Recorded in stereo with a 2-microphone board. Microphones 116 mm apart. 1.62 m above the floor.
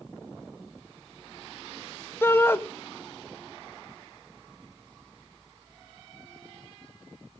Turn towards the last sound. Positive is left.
turn(degrees=20)  # may be behind; listen again after turning